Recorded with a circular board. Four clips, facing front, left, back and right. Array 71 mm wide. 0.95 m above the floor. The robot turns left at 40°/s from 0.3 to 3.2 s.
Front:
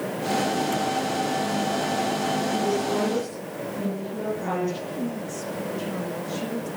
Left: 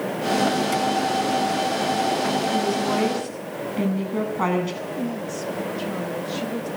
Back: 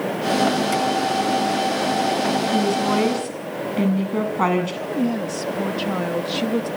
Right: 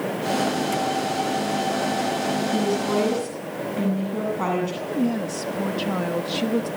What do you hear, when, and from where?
2.5 s a woman speaking: 165° right, 8 m; by 4.7 s 170° left, 8 m
4.8 s a woman speaking: 150° right, 1.8 m